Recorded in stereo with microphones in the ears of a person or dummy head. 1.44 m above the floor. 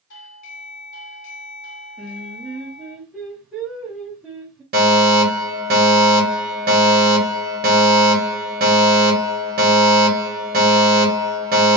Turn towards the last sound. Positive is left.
turn(degrees=-50)  # may be behind; listen again after turning